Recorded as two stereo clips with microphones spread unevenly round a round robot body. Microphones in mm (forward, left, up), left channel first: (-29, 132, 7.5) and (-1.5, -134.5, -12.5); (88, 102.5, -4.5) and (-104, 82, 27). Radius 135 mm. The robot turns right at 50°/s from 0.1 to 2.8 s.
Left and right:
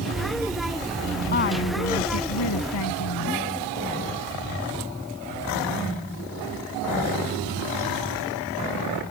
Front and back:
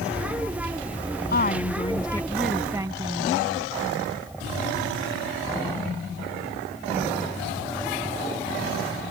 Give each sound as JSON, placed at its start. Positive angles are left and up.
{"t": 1.3, "sound": "a woman speaking", "azimuth_deg": 40}